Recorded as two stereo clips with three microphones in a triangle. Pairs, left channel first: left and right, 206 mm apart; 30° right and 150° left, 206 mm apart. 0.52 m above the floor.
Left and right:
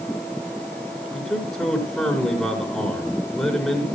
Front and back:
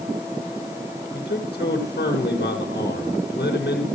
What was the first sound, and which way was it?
A man speaking, 10° left.